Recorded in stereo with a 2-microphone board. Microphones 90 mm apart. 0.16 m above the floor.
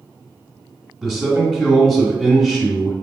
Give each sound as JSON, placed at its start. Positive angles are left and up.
{"t": 1.0, "sound": "a man speaking", "side_deg": 0, "distance_m": 1.8}